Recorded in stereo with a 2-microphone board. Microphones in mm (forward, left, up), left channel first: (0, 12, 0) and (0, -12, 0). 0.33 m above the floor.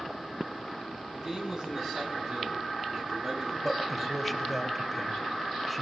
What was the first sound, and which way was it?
A man speaking, 30° right (ahead or behind).